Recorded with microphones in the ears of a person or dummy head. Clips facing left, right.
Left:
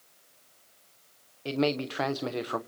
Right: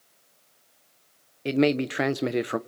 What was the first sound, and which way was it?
A man speaking, 25° right (ahead or behind).